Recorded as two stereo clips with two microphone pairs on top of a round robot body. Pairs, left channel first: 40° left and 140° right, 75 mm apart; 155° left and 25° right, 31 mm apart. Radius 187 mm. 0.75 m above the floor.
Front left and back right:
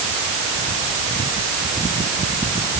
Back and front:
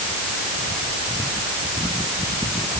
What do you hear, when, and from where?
Only background noise.